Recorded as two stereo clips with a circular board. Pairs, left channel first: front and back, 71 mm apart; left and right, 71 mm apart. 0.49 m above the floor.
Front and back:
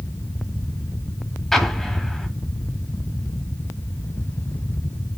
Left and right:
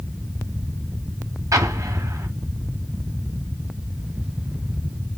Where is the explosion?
85° right, 1.0 m.